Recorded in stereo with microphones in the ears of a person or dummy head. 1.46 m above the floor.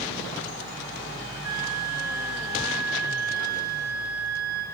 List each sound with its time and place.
1.4 s a flute: 15° right (ahead or behind), 8 m